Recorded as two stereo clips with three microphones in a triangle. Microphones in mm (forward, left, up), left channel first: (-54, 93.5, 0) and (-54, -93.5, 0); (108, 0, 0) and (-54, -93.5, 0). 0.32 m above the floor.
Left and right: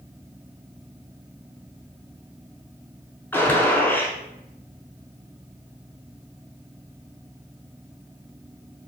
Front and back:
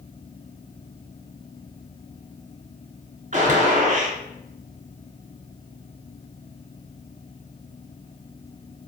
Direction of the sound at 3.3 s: 170° left.